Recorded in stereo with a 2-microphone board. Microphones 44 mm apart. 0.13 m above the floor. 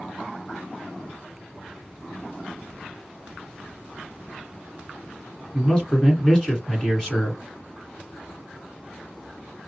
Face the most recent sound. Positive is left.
turn(degrees=15)  # may be behind; listen again after turning